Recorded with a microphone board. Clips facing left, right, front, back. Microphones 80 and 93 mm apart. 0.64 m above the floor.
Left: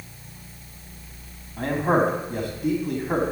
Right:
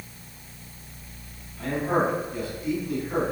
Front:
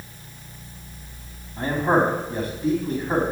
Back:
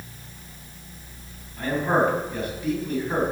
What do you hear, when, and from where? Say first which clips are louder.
1.6 s a man speaking: left 3 dB, front 2 dB; 60° left, 4 m